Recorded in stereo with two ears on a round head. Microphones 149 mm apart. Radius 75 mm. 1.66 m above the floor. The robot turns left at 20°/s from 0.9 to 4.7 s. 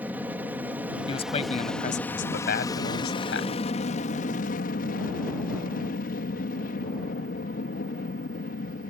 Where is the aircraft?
170° right; by 8.9 s 115° left.